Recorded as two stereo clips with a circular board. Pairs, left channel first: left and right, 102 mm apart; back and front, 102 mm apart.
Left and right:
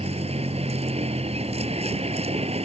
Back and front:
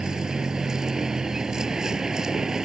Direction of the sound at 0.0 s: 85° right.